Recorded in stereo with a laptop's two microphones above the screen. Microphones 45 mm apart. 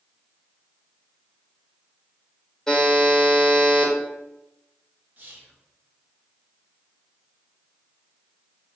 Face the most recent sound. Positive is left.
turn(degrees=-45)  # may be behind; listen again after turning